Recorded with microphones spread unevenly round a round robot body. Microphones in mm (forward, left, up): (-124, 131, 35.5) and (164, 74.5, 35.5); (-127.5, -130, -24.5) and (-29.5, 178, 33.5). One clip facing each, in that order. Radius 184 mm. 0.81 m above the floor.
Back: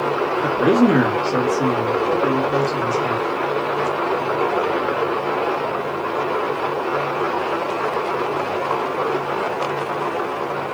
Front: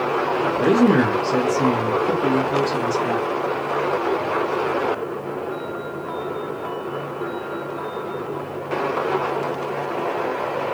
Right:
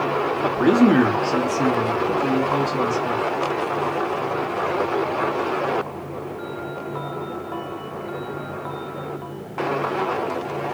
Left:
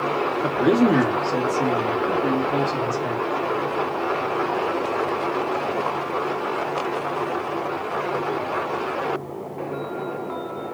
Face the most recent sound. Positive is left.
turn(degrees=-50)